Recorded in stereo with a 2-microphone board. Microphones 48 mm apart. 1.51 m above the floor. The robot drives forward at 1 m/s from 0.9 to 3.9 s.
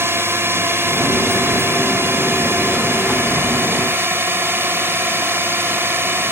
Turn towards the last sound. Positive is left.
turn(degrees=-50)  # may be behind; listen again after turning